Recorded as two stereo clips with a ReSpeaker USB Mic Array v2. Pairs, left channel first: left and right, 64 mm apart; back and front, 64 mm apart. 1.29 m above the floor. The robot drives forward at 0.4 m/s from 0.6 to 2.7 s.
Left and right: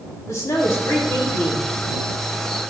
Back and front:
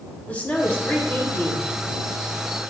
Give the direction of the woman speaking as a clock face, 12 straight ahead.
8 o'clock.